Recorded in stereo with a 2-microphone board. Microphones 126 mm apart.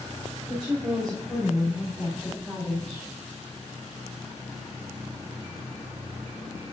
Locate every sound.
0.5 s a woman speaking: 35° right (ahead or behind), 3.5 m; by 3.1 s centre (ahead or behind), 2 m